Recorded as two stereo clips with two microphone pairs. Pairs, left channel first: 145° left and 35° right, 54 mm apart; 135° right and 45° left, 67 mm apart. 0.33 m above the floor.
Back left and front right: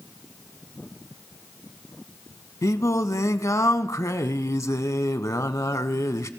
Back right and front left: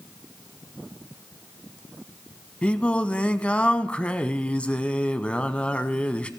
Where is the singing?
155° left, 0.6 m.